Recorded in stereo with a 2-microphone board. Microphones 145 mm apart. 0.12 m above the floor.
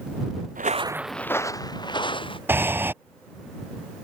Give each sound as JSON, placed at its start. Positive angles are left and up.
{"t": 0.6, "sound": "footsteps", "side_deg": -70}
{"t": 2.5, "sound": "breathing", "side_deg": -15}